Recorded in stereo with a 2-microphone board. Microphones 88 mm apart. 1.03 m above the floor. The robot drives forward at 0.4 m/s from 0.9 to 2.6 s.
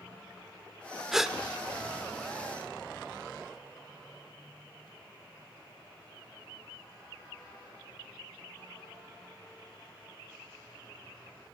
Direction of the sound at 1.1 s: 5° right (ahead or behind).